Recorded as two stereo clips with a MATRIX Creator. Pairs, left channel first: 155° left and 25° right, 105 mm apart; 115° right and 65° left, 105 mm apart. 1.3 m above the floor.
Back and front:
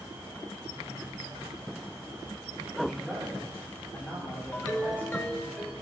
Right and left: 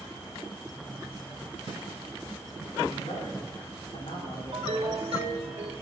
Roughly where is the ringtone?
Left.